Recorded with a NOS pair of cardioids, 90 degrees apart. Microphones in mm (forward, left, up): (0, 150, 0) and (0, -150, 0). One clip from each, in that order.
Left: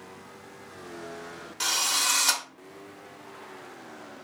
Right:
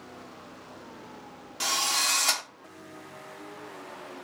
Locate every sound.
1.6 s a drill: straight ahead, 0.8 m